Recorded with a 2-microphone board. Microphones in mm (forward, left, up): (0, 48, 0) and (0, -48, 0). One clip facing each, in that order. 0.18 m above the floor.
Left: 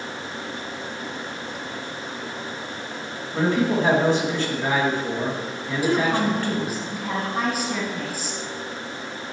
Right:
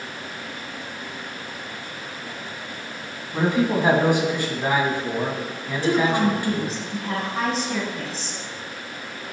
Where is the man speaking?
15° right (ahead or behind), 1.3 m.